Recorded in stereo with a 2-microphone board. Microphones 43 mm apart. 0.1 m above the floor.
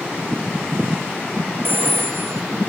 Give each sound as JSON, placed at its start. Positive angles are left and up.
{"t": 1.6, "sound": "a phone ringing", "side_deg": -55}